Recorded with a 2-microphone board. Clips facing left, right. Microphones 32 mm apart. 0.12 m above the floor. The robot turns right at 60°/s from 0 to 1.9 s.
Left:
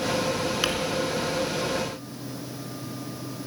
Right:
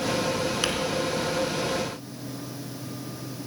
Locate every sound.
0.6 s crumpling: 10° left (ahead or behind), 0.9 m